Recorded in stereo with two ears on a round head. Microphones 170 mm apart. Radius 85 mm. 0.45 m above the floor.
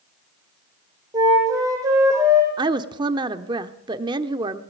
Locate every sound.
1.1 s a flute: 15° right (ahead or behind), 8.5 m
2.6 s a woman speaking: 25° right (ahead or behind), 1.0 m